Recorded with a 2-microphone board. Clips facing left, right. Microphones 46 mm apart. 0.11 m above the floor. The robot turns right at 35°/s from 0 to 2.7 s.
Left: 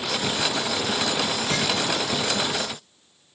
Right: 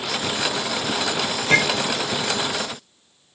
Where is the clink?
60° right (ahead or behind), 1.6 m; by 1.9 s 50° right (ahead or behind), 1.6 m.